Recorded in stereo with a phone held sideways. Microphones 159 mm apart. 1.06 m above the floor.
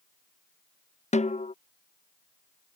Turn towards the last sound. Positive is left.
turn(degrees=45)  # may be behind; listen again after turning